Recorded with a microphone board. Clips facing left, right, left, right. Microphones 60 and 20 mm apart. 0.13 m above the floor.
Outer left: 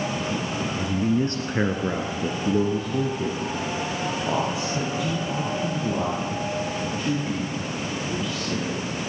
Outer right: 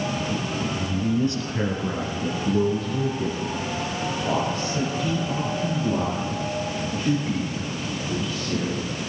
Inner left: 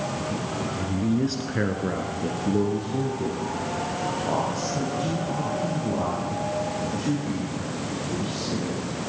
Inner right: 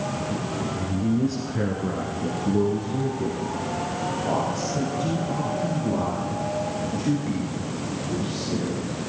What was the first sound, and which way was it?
A woman speaking, 40° left (ahead or behind).